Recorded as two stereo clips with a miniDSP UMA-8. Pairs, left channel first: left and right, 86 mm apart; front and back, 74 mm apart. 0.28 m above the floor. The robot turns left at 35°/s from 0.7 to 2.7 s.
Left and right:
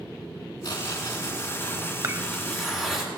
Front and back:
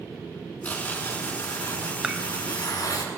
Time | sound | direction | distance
0.6 | tearing paper | 65° left | 3.5 m
2.0 | dishes clattering | 110° right | 0.9 m